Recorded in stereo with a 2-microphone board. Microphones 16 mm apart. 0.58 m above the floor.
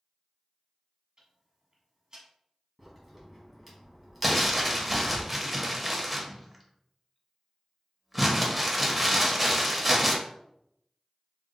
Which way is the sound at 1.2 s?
45° right (ahead or behind).